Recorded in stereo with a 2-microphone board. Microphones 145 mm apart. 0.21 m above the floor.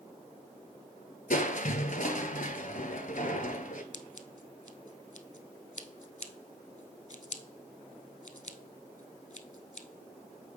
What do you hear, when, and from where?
1.3 s crushing: 70° left (ahead or behind), 0.7 m
3.9 s scissors: 60° left (ahead or behind), 0.6 m